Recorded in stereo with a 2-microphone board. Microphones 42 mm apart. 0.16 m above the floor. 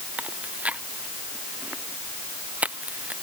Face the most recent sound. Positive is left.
turn(degrees=-35)  # may be behind; listen again after turning